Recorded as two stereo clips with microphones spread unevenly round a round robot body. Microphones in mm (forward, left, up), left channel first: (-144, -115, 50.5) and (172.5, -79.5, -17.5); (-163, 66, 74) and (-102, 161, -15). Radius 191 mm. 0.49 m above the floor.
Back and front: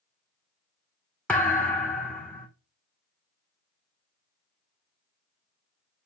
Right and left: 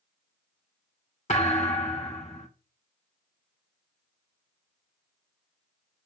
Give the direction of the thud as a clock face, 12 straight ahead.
3 o'clock.